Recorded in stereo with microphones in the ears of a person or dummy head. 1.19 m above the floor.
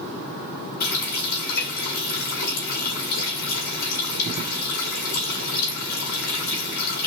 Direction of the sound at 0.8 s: 65° left (ahead or behind).